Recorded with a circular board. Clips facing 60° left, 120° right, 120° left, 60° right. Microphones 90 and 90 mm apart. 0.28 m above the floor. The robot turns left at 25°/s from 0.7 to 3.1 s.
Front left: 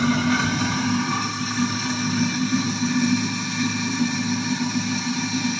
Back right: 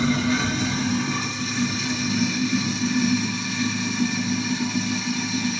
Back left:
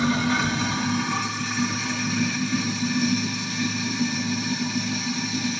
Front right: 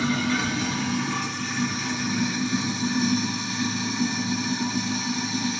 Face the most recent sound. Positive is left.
turn(degrees=-5)